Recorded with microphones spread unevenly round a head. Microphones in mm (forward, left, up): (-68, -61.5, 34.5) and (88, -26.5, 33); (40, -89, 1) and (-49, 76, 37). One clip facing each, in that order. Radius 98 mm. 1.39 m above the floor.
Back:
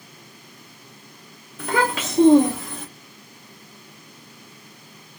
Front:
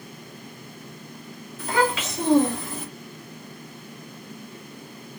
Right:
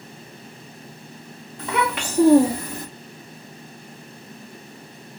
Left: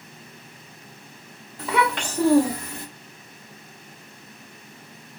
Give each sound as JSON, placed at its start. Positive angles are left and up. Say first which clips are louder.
{"t": 1.6, "sound": "a child speaking", "louder": "back 1 dB, left 1 dB", "azimuth_deg": -170, "distance_m": 0.7}